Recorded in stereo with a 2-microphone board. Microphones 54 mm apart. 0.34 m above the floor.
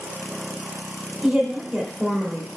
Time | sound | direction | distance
1.2 | a woman speaking | 10° right (ahead or behind) | 0.8 m